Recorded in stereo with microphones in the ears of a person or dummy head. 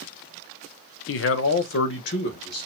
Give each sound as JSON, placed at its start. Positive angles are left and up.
{"t": 1.1, "sound": "a man speaking", "side_deg": 70, "distance_m": 0.6}